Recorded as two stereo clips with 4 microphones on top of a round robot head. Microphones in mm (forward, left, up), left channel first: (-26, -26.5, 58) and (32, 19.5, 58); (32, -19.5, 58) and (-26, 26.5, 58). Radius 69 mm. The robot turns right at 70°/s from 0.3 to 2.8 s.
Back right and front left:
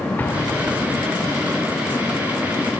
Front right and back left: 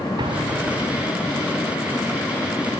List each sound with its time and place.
0.2 s an explosion: 155° left, 2 m; by 1.3 s 135° right, 2 m